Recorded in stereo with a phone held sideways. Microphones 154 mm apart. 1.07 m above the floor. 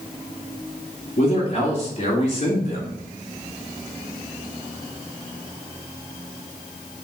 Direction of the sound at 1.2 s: 40° left (ahead or behind).